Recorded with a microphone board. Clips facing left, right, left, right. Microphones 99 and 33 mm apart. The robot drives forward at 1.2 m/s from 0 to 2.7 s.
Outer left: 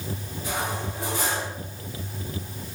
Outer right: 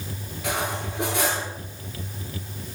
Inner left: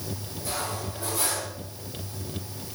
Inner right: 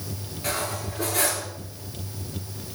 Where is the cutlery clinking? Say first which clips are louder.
Outer right 2 dB, inner right 3 dB; 85° right, 8 m.